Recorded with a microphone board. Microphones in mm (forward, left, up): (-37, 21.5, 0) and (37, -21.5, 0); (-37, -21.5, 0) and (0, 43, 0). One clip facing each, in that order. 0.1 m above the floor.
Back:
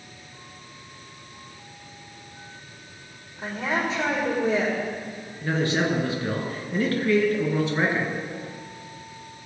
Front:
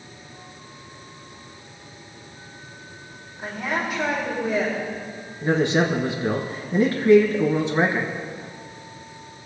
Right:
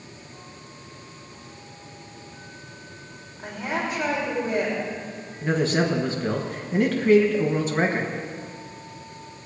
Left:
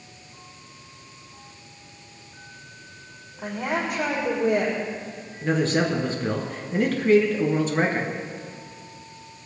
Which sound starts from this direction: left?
A woman speaking, at 3.4 s.